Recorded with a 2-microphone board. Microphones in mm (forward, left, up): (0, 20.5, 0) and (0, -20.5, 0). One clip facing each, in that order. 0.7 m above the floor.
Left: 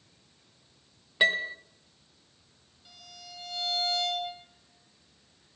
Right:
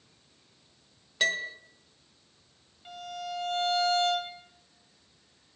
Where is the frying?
I don't hear frying.